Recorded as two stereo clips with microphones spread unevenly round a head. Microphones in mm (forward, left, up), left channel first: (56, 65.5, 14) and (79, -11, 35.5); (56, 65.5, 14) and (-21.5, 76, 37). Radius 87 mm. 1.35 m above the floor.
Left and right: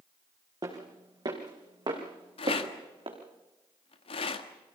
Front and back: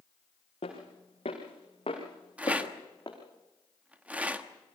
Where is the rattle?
110° left, 1.3 m.